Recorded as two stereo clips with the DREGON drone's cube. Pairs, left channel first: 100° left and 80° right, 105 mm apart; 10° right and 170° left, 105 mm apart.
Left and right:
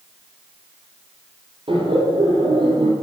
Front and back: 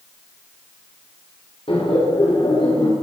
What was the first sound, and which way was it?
Laughter, 45° right.